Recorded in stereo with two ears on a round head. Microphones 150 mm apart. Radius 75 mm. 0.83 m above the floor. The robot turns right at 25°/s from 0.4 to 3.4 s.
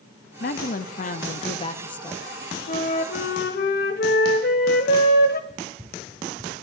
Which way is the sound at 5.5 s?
5° right (ahead or behind).